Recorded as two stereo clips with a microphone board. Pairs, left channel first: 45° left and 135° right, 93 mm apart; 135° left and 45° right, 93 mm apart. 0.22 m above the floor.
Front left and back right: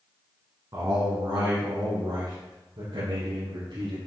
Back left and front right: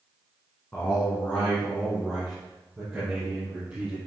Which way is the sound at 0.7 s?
165° right.